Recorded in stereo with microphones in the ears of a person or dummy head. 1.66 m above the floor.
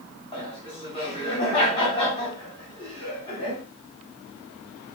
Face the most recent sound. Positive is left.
turn(degrees=30)  # may be behind; listen again after turning